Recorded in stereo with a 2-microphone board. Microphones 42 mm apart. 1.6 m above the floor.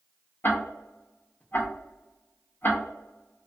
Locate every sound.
0.4 s ticking: 55° left (ahead or behind), 0.6 m